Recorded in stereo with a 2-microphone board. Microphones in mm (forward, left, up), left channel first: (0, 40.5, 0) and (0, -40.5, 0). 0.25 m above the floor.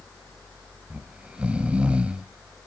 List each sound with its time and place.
0.9 s snoring: 15° right (ahead or behind), 0.5 m